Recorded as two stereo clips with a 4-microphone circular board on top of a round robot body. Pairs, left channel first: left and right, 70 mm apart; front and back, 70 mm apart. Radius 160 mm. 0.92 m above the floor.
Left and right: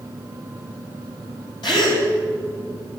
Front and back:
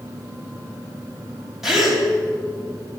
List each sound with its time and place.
1.6 s a gasp: 95° left, 4.5 m